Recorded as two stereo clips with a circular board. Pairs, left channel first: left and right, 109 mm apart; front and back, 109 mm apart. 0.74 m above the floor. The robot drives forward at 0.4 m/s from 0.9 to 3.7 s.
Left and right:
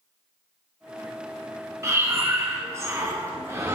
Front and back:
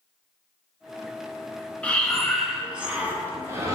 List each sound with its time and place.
1.8 s breathing: 65° right, 1.1 m; by 3.8 s 140° right, 1.2 m